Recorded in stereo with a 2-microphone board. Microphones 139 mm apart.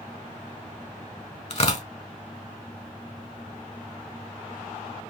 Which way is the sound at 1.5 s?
50° left (ahead or behind).